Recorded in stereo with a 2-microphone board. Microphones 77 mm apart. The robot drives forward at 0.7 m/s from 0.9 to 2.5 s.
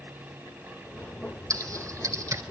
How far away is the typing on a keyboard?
About 2.5 m.